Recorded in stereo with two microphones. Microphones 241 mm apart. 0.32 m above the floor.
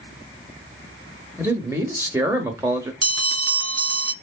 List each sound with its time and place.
1.4 s a man speaking: 10° right (ahead or behind), 0.8 m
3.0 s a bell: 80° right, 0.5 m